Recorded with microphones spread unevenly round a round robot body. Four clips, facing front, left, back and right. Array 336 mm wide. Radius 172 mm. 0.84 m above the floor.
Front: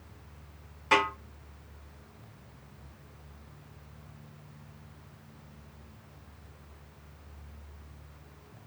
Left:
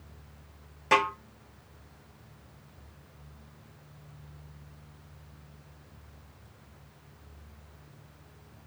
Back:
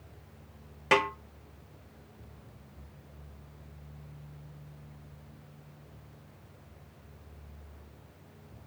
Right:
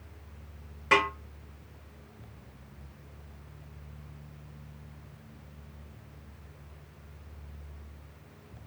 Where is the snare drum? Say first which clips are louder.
Left 1 dB, even; 175° left, 0.7 m.